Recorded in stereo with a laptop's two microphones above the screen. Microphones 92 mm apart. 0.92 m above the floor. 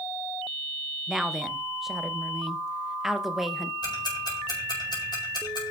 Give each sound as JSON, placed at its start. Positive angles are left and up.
{"t": 1.1, "sound": "a woman speaking", "side_deg": 0, "distance_m": 0.8}
{"t": 3.8, "sound": "ticking", "side_deg": 50, "distance_m": 5.5}